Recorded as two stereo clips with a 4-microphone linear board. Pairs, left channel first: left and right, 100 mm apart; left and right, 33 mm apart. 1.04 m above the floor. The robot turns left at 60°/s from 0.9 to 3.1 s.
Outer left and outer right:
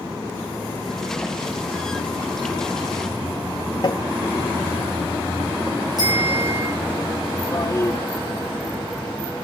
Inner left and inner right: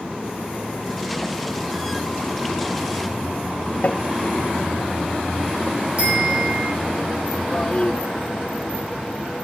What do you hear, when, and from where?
3.8 s tapping: 45° left (ahead or behind), 1.1 m
6.0 s a bicycle bell: 40° right (ahead or behind), 6.5 m
7.5 s a toilet flushing: 30° left (ahead or behind), 0.7 m